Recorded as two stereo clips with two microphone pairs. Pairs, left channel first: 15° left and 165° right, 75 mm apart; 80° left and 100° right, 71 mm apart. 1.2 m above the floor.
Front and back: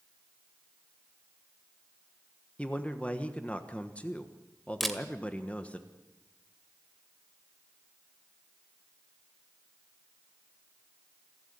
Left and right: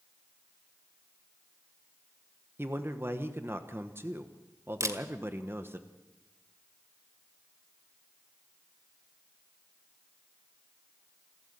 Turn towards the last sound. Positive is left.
turn(degrees=-70)